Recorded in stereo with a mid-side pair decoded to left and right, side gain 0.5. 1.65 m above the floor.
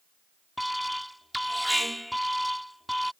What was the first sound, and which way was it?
An alarm, straight ahead.